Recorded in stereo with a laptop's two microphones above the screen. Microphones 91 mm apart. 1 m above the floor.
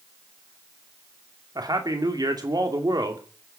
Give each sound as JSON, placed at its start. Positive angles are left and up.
{"t": 1.6, "sound": "a man speaking", "side_deg": -45, "distance_m": 2.5}